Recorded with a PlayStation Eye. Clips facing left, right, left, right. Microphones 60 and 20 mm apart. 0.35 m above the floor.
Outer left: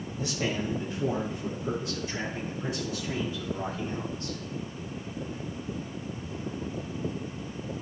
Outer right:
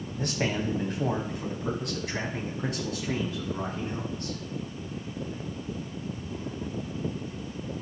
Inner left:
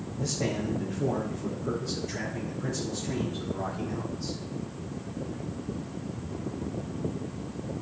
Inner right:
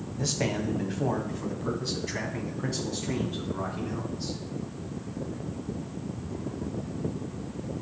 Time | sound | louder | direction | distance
0.2 | a man speaking | outer right 2 dB, inner right 1 dB | 55° right (ahead or behind) | 1.8 m